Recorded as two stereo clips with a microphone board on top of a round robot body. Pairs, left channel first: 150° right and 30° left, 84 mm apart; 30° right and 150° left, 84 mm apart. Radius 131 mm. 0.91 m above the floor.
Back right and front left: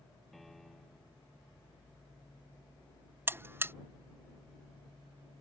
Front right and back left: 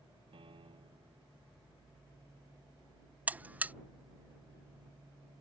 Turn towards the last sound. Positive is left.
turn(degrees=85)